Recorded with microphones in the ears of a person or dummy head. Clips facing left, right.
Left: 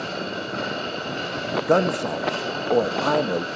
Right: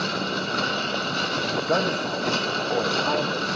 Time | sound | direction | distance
0.0 | a machine running | 70° right (ahead or behind) | 3.5 m
1.5 | a man speaking | 50° left (ahead or behind) | 1.4 m